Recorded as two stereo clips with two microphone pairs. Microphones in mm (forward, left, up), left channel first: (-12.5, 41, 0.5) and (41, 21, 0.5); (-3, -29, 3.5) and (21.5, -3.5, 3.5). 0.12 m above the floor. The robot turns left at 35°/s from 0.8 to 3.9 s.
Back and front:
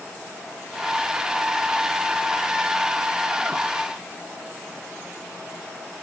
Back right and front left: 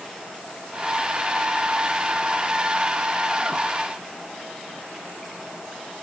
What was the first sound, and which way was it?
Only background noise.